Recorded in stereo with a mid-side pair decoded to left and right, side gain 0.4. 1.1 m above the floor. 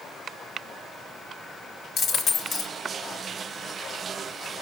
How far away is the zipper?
No zipper in this recording.